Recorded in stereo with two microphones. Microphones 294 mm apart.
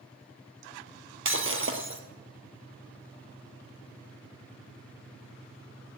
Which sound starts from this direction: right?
Breaking glass, at 1.2 s.